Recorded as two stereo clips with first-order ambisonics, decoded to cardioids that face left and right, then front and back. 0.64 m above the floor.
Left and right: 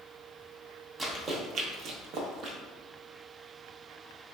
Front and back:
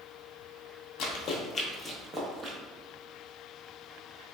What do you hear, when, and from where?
1.0 s running footsteps: 15° right, 1.0 m; by 2.6 s 125° right, 1.1 m